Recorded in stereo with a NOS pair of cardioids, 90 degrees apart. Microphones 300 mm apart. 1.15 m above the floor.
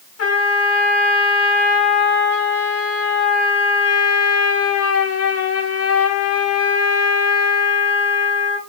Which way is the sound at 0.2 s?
55° left.